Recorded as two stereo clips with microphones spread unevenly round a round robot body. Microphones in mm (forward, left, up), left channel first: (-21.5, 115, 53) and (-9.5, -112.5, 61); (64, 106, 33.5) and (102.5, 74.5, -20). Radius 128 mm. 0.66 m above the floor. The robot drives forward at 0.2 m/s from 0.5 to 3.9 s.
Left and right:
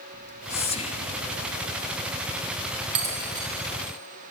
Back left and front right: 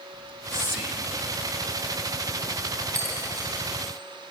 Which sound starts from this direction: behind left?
Whispering, at 0.1 s.